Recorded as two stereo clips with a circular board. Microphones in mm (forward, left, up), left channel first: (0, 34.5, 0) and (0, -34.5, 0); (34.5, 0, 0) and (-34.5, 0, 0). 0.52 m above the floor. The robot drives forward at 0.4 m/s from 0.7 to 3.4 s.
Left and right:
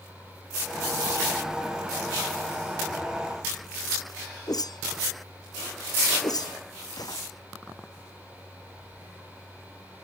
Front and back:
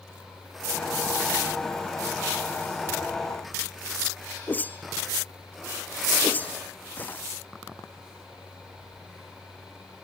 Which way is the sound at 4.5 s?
65° left.